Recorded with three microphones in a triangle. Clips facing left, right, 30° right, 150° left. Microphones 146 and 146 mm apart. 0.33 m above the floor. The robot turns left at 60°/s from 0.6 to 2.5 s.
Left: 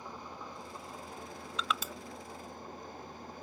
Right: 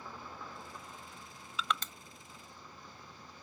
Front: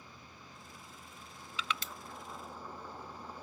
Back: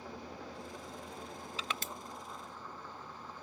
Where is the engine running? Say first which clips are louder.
Left 2 dB, back 10 dB; 165° left; by 3.4 s 50° left.